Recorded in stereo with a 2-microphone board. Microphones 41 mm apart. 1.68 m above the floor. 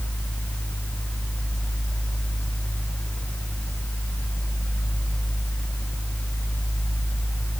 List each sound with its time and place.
Only background noise.